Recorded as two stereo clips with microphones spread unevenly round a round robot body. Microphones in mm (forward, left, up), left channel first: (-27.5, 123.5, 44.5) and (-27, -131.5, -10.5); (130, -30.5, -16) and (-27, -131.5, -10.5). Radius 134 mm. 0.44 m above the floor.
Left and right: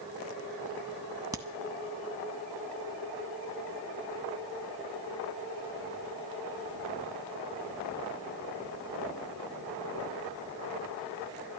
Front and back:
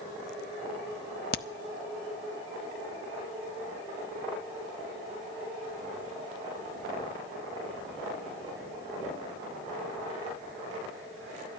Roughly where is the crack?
Ahead.